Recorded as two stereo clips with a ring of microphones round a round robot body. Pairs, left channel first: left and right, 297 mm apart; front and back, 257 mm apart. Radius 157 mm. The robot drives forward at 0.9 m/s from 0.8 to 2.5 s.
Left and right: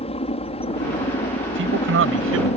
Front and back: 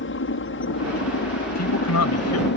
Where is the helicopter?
25° left.